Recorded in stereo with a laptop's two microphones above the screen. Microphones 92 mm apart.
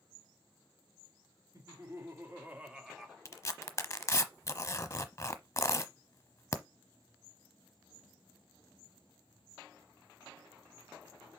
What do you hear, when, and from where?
1.5 s laughter: 40° right (ahead or behind), 2 m; by 3.1 s centre (ahead or behind), 1.5 m
3.2 s tearing paper: 30° left (ahead or behind), 0.9 m